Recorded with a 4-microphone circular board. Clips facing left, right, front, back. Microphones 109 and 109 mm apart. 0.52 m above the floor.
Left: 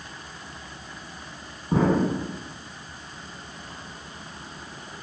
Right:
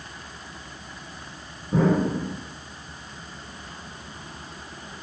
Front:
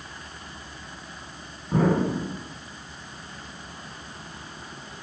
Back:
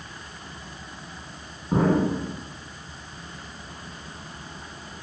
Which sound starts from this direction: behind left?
An explosion, at 1.7 s.